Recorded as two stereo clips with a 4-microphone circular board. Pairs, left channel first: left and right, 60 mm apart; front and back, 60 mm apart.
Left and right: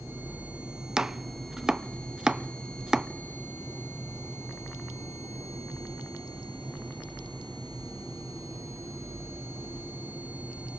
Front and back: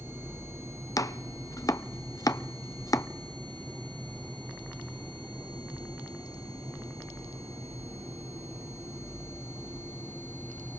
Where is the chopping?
15° right, 0.6 m.